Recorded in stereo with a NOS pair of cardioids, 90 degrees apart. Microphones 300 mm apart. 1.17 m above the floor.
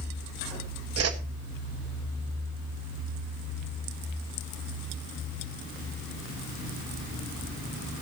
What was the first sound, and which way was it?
A whoosh, 55° right.